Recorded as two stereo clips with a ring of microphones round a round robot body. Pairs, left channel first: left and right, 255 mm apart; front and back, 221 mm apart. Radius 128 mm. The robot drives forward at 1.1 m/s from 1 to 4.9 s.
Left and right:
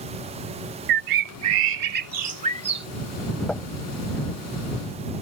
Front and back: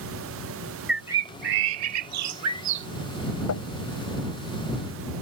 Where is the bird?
90° right; by 2.9 s 160° right.